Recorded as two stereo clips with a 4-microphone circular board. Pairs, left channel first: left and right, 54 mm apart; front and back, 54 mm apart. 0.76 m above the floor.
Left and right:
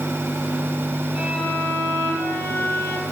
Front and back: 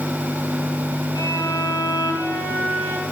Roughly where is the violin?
Ahead.